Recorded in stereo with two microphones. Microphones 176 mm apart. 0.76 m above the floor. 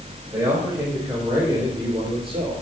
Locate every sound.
0.3 s a man speaking: 10° right (ahead or behind), 3.5 m; by 2.5 s 30° right (ahead or behind), 2.5 m